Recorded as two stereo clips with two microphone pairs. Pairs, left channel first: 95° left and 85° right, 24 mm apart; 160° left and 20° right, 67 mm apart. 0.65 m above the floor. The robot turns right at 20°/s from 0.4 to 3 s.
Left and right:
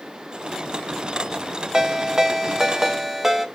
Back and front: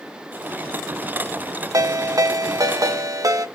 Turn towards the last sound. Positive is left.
turn(degrees=-10)